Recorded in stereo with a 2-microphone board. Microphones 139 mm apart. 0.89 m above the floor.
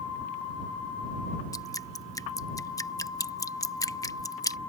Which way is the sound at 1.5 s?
25° left (ahead or behind).